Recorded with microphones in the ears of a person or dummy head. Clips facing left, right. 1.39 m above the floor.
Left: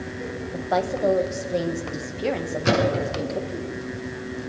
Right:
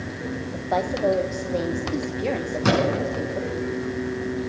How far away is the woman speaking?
About 1.3 m.